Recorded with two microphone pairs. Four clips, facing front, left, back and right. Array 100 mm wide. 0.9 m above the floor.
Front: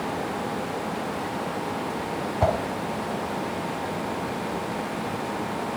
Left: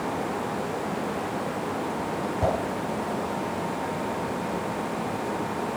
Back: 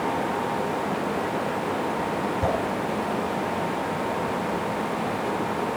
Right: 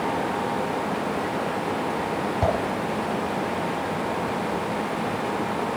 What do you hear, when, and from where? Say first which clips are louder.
2.4 s a whoosh: right 1 dB, front 5 dB; 15° right, 5.5 m